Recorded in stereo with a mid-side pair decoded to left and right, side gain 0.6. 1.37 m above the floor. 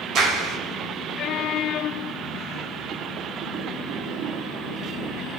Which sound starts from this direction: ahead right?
A clap, at 0.1 s.